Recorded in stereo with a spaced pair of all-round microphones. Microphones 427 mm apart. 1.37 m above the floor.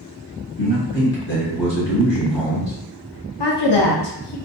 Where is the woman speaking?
70° left (ahead or behind), 0.7 m.